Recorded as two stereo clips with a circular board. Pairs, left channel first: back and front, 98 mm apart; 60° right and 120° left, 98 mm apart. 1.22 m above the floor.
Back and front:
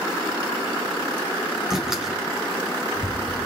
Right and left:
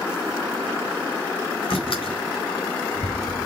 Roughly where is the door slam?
Right.